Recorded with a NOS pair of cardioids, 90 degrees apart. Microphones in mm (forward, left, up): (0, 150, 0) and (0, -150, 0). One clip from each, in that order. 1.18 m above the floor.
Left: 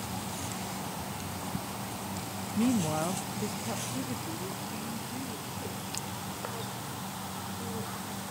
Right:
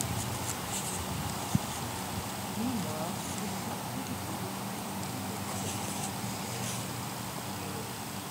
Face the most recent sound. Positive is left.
turn(degrees=30)